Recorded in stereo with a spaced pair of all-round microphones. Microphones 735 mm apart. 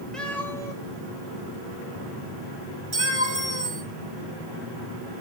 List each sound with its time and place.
0.1 s a cat meowing: centre (ahead or behind), 4 m; by 3.8 s 15° left (ahead or behind), 5.5 m
2.9 s a clink: 75° right (ahead or behind), 5 m